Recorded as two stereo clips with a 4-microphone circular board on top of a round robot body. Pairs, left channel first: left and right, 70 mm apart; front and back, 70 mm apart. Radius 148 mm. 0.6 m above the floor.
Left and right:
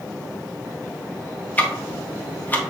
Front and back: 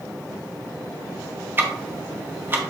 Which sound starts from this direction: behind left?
Ticking, at 1.6 s.